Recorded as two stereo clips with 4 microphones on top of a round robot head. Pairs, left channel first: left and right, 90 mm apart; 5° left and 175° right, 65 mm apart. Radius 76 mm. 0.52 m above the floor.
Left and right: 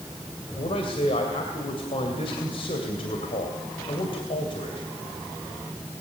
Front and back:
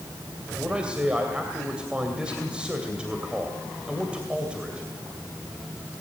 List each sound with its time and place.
0.6 s a man speaking: 115° left, 2.5 m